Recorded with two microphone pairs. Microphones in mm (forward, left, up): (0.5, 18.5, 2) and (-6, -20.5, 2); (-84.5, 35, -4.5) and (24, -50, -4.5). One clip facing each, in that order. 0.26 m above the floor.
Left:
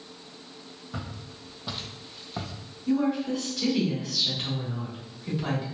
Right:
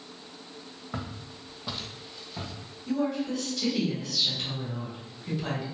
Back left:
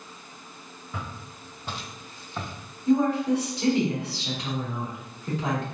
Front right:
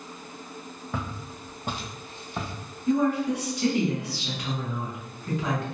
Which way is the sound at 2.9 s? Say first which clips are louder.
Left 3 dB, back left 2 dB; 150° left.